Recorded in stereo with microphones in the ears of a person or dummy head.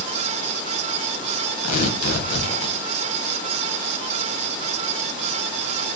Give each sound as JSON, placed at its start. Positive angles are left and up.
{"t": 1.6, "sound": "tearing paper", "side_deg": 50, "distance_m": 1.1}